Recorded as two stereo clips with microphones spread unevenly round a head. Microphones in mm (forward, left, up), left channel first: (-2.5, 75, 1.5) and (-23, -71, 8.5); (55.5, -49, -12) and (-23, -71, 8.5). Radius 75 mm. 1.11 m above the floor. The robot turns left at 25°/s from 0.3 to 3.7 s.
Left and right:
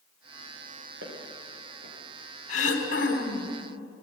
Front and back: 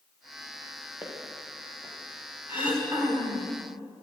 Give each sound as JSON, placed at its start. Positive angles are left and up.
{"t": 1.0, "sound": "footsteps", "azimuth_deg": -95, "distance_m": 7.0}
{"t": 2.5, "sound": "throat clearing", "azimuth_deg": 125, "distance_m": 4.0}